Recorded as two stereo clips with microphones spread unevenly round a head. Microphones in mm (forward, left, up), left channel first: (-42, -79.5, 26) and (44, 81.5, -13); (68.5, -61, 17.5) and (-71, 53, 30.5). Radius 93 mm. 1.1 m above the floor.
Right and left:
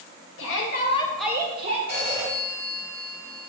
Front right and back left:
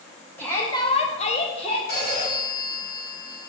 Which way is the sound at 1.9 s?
15° right.